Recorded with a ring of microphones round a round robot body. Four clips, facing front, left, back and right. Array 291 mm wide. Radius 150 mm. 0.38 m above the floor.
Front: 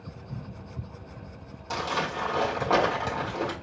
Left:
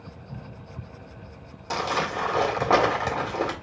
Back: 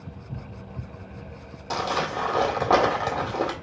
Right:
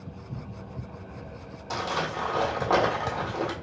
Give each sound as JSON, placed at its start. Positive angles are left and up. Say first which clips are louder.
{"t": 1.7, "sound": "crumpling", "louder": "left 3 dB, back 3 dB", "azimuth_deg": 130, "distance_m": 1.4}